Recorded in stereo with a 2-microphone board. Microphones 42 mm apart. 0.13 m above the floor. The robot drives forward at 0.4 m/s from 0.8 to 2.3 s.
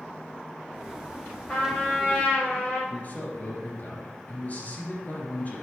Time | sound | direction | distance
1.5 | a trumpet | 20° left (ahead or behind) | 4.5 m
2.9 | a man speaking | 40° left (ahead or behind) | 3 m